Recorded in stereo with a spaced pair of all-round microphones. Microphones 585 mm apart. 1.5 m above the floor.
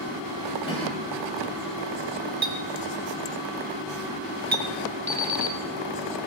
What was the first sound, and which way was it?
A cough, 10° left (ahead or behind).